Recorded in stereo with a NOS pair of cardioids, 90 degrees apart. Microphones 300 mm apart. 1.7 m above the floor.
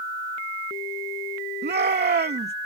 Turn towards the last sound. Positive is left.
turn(degrees=-35)